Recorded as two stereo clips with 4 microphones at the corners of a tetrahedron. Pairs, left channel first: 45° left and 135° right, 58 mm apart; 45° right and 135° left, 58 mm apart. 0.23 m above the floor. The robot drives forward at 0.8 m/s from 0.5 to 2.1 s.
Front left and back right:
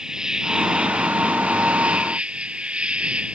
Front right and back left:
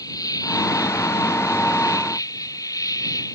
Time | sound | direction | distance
0.0 | an insect | 55° right | ?